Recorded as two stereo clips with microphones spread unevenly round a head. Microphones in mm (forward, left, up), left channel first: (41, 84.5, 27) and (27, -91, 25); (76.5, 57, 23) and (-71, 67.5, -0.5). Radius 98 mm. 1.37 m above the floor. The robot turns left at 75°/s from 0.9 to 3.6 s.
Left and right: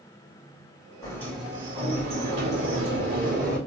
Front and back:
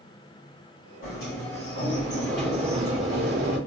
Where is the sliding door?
20° left, 3 m; by 3.6 s 175° right, 3 m.